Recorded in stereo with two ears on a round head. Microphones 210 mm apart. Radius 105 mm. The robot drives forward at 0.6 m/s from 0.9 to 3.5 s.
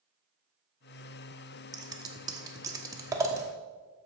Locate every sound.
1.7 s scissors: 15° right (ahead or behind), 1.0 m